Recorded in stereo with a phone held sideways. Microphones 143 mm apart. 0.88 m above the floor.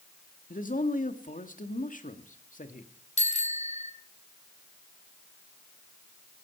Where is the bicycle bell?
55° left (ahead or behind), 2 m.